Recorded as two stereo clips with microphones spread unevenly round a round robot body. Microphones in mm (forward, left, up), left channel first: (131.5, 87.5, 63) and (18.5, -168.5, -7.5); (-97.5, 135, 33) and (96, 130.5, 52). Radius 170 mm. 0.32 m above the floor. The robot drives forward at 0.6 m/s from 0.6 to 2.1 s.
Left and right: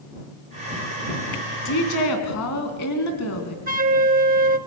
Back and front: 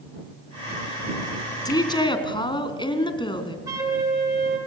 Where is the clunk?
No clunk in this recording.